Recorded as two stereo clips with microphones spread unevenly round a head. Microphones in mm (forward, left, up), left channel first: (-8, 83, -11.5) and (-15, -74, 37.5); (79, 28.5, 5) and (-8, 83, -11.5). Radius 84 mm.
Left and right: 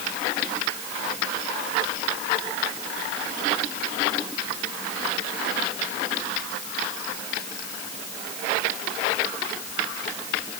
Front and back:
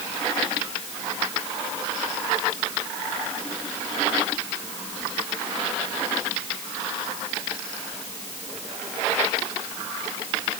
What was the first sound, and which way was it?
Only background noise.